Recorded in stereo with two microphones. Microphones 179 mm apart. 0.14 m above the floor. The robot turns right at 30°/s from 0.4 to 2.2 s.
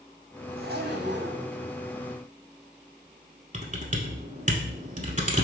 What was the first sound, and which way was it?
A zipper, 60° right (ahead or behind).